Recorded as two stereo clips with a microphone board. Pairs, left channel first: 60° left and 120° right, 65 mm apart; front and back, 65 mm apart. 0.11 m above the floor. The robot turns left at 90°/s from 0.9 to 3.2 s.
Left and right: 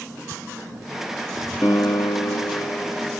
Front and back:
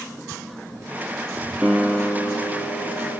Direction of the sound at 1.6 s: 105° left.